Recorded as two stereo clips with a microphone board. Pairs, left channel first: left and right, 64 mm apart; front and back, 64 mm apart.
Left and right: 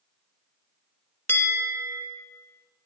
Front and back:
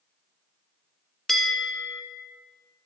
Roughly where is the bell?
Left.